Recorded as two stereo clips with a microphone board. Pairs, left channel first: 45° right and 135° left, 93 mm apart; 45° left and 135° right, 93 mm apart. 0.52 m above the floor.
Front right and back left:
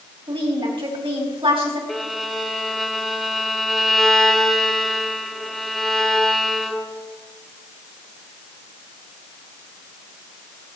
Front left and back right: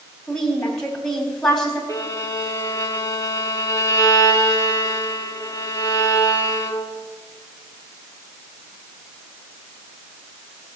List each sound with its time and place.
0.3 s a woman speaking: 130° left, 3.5 m
1.9 s a violin: 45° left, 1.2 m